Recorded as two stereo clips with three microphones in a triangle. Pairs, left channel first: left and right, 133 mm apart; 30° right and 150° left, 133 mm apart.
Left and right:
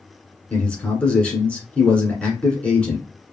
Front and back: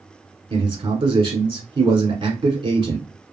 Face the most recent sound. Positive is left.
turn(degrees=165)